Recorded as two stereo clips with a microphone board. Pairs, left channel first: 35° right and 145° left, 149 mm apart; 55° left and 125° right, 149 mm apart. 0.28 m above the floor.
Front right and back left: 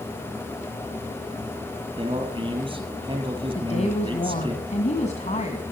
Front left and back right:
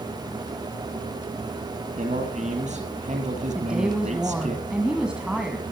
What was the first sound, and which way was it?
A man speaking, 160° right.